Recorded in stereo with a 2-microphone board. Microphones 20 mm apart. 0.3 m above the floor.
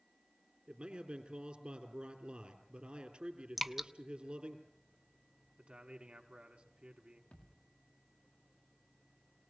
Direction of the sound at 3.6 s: 10° right (ahead or behind).